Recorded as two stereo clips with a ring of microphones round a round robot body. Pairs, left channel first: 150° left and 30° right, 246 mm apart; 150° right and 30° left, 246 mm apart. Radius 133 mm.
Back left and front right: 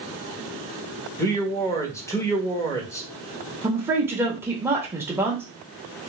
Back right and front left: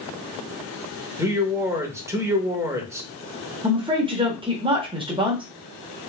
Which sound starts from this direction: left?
A man speaking, at 1.2 s.